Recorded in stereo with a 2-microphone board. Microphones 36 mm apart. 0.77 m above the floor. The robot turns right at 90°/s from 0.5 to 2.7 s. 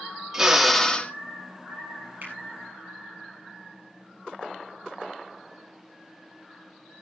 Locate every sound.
0.3 s a drill: 15° right, 1.3 m; by 1.1 s 45° left, 1.3 m
2.2 s a finger snap: 50° right (ahead or behind), 8 m; by 2.3 s 60° right (ahead or behind), 8 m